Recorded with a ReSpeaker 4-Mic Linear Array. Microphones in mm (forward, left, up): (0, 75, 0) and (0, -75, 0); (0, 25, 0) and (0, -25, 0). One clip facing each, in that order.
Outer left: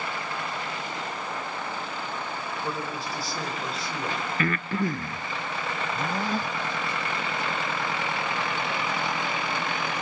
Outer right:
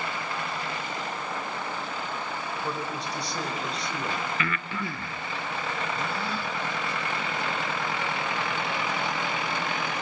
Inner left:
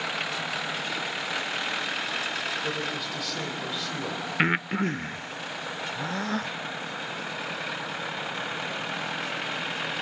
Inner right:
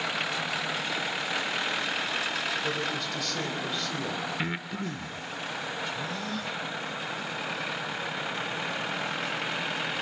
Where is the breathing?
45° left (ahead or behind), 0.7 m.